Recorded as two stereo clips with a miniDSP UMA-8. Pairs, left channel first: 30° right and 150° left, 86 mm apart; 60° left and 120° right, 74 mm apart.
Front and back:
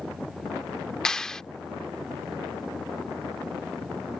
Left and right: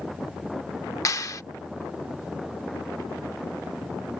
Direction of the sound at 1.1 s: 50° left.